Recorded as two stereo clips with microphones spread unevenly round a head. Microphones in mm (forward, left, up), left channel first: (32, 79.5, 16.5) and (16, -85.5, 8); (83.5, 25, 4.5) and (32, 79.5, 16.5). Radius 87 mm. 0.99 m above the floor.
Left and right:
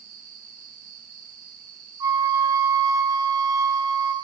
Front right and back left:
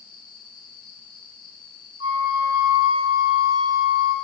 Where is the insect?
55° right, 9 m.